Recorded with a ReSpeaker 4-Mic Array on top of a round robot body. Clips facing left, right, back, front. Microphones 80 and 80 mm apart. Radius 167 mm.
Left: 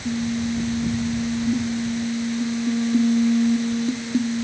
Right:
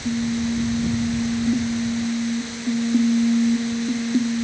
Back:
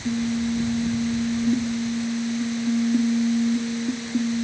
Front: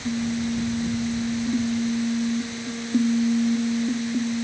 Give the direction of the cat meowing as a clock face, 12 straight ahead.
No cat meowing in this recording.